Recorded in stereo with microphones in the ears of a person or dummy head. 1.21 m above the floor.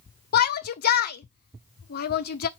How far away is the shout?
About 1.0 m.